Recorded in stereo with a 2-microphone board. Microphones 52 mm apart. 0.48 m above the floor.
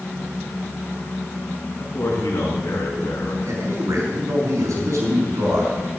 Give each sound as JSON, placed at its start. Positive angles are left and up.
{"t": 1.8, "sound": "a man speaking", "side_deg": 75, "distance_m": 5.0}
{"t": 3.5, "sound": "a man speaking", "side_deg": -80, "distance_m": 4.5}